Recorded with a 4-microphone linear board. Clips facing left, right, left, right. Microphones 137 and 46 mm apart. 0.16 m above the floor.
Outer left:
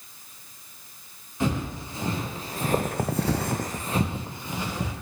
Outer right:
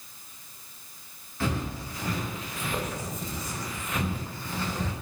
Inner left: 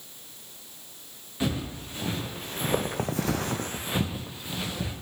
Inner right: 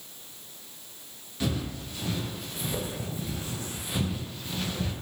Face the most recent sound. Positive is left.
turn(degrees=10)  # may be behind; listen again after turning